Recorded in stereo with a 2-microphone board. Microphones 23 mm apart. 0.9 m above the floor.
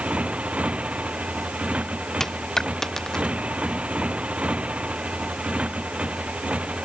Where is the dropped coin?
20° left (ahead or behind).